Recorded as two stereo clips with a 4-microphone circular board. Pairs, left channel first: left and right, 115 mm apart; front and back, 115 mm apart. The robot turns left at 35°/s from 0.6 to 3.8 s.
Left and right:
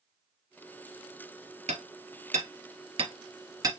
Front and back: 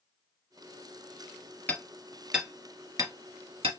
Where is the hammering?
75° right, 1.6 m; by 3.7 s 150° right, 1.6 m.